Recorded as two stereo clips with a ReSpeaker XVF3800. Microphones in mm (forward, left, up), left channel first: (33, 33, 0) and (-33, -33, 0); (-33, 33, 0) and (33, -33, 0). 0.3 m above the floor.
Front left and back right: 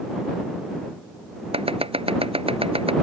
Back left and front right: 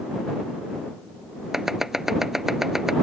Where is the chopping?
130° right.